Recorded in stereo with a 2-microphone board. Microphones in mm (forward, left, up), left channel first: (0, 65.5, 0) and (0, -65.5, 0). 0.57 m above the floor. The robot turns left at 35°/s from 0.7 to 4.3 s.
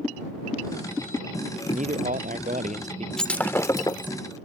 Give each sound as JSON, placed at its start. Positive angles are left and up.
{"t": 1.7, "sound": "a man speaking", "azimuth_deg": -75}
{"t": 3.2, "sound": "breaking glass", "azimuth_deg": 175}